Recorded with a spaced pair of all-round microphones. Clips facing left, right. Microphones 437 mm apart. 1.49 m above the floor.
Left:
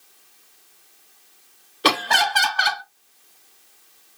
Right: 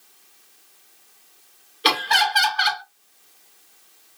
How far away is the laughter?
About 0.6 m.